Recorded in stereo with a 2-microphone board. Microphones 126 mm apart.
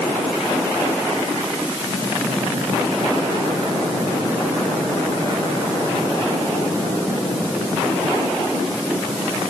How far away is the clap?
I don't hear a clap.